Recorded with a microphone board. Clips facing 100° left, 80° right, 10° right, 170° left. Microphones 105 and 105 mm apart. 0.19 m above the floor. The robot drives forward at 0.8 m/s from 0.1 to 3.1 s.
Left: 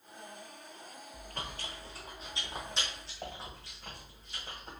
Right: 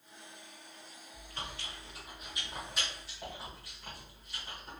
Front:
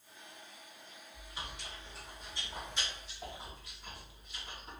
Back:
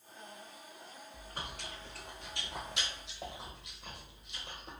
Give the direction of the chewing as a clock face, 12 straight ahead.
8 o'clock.